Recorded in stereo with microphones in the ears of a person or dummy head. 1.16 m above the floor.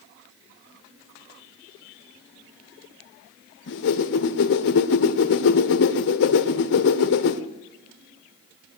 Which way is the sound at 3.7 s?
70° left (ahead or behind).